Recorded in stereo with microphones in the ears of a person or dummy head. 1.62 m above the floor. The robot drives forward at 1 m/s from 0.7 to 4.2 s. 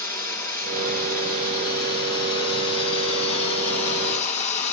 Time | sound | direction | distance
0.0 | running water | 20° left (ahead or behind) | 7 m